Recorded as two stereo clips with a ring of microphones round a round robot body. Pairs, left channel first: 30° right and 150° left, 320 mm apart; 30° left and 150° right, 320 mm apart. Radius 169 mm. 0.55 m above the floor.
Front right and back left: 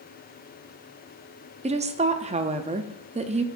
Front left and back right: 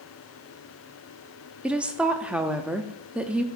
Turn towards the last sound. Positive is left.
turn(degrees=130)